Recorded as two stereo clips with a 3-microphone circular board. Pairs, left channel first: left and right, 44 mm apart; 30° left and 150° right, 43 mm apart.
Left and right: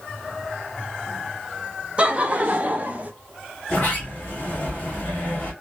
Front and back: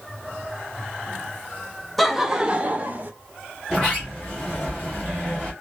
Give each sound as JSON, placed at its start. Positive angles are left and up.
{"t": 2.0, "sound": "laughter", "azimuth_deg": -60, "distance_m": 0.6}
{"t": 3.7, "sound": "a sliding door", "azimuth_deg": 135, "distance_m": 1.8}